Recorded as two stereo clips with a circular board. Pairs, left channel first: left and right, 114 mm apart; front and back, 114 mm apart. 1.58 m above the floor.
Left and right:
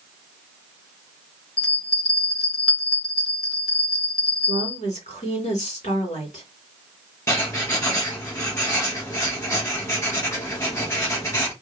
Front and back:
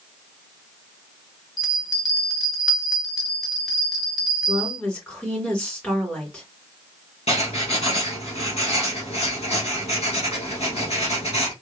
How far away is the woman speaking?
About 3 m.